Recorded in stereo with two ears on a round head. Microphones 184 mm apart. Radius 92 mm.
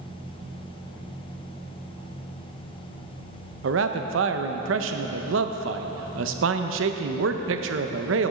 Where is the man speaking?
70° right (ahead or behind), 0.6 m.